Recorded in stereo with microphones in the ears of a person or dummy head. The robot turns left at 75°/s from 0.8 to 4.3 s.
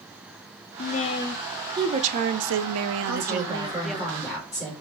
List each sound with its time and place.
0.8 s a woman speaking: 55° left, 0.5 m; by 4.0 s 170° left, 0.5 m
3.0 s a woman speaking: 80° right, 3 m; by 4.7 s 175° right, 3 m